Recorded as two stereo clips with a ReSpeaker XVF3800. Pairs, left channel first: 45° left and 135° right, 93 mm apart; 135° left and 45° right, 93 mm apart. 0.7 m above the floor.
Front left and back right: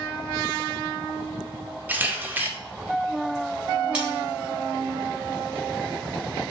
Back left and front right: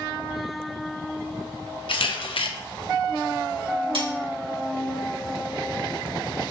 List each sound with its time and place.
1.9 s a camera shutter: 155° left, 0.6 m
3.9 s cutlery clinking: 60° right, 1.2 m